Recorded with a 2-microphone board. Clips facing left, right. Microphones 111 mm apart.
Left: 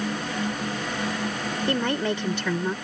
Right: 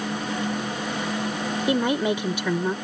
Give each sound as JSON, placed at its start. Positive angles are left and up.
{"t": 1.7, "sound": "a woman speaking", "side_deg": -15}